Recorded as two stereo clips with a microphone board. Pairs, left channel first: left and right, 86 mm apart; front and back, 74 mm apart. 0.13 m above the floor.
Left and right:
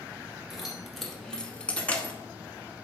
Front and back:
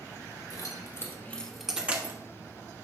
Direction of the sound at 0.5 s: 5° right.